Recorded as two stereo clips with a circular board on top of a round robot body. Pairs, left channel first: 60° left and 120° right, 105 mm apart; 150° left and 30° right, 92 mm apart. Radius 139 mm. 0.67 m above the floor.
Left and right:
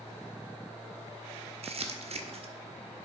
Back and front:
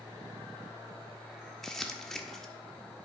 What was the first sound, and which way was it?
Crumpling, 125° right.